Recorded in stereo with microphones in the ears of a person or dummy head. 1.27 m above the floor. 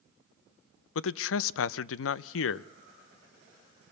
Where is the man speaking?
80° left, 0.5 m.